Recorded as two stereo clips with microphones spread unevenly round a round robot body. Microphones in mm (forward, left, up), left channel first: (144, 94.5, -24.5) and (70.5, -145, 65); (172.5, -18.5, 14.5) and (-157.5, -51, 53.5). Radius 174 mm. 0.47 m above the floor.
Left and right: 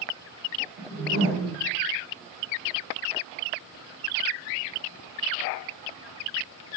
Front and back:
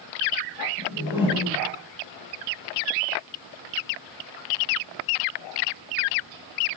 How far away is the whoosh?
About 1.1 m.